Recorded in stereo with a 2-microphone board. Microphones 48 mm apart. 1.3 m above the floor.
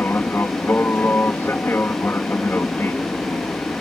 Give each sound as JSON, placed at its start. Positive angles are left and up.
{"t": 0.0, "sound": "an aircraft", "side_deg": 45}